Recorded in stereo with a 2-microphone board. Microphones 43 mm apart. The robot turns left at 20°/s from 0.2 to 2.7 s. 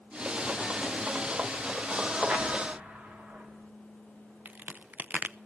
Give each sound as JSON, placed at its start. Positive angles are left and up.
{"t": 2.3, "sound": "an explosion", "side_deg": -25, "distance_m": 2.0}
{"t": 4.5, "sound": "a crack", "side_deg": -40, "distance_m": 0.5}